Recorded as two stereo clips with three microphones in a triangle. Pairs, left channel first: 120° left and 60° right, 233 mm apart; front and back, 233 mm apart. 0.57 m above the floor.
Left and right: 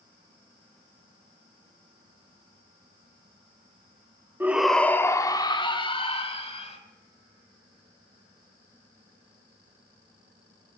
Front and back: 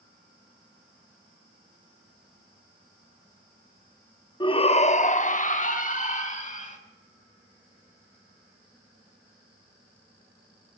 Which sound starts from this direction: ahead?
A shout, at 4.4 s.